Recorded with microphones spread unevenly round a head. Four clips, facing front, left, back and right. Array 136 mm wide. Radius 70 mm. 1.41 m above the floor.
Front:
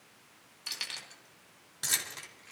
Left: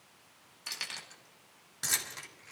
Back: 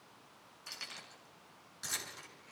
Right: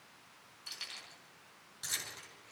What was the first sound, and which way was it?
Keys jangling, 55° left.